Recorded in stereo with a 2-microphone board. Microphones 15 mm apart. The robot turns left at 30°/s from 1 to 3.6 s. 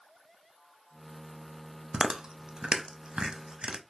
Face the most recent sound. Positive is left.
turn(degrees=-70)  # may be behind; listen again after turning